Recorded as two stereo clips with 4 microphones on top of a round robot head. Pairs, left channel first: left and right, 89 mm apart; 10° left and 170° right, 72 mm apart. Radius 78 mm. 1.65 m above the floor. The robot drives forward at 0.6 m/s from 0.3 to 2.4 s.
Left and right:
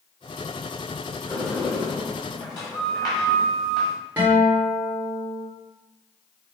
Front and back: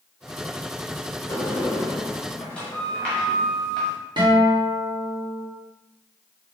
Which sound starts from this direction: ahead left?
A sliding door, at 1.3 s.